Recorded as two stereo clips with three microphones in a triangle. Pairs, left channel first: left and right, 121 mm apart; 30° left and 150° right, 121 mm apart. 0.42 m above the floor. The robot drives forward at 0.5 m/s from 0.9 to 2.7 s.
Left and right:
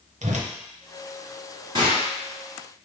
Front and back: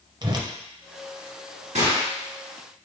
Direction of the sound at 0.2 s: 95° right.